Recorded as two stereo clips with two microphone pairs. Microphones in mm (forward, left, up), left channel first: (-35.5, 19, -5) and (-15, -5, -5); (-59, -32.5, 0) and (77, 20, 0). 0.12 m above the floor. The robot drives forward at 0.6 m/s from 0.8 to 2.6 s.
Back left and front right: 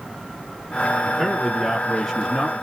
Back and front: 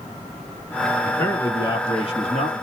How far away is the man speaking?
About 1.1 m.